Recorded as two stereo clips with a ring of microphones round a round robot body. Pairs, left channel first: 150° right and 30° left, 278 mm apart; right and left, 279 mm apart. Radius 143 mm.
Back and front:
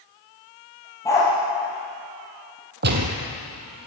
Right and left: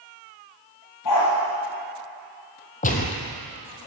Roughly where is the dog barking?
Right.